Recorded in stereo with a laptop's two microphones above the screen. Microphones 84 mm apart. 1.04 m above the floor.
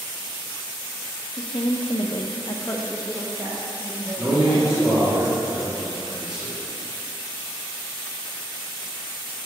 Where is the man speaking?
10° right (ahead or behind), 2.5 m.